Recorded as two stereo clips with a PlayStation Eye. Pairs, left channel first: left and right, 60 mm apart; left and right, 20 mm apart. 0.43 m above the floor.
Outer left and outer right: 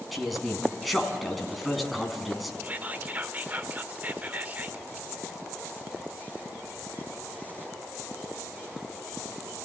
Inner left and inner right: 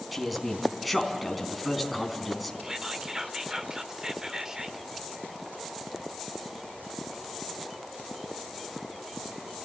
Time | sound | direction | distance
0.1 | a man speaking | centre (ahead or behind) | 4 m
2.6 | whispering | 30° right (ahead or behind) | 0.9 m